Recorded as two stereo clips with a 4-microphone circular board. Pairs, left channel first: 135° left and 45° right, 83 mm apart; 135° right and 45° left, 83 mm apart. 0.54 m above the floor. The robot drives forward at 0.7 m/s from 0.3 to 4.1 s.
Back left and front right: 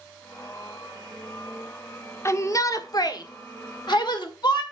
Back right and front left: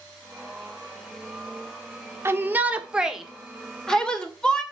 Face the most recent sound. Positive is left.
turn(degrees=145)